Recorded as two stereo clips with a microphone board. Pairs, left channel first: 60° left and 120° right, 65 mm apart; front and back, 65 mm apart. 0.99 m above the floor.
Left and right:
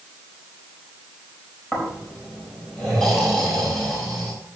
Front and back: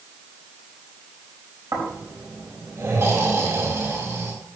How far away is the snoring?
About 4 m.